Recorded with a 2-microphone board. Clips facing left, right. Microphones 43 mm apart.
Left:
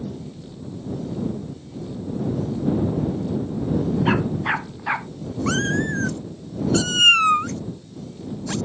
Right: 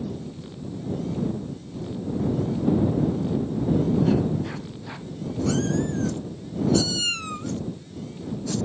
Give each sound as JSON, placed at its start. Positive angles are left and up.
{"t": 4.0, "sound": "a dog barking", "side_deg": 70}
{"t": 5.5, "sound": "a cat meowing", "side_deg": 55}